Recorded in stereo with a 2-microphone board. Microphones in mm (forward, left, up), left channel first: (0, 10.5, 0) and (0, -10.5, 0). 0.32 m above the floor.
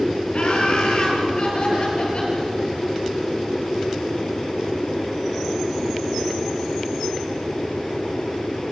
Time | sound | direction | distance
0.3 | laughter | 55° left (ahead or behind) | 8 m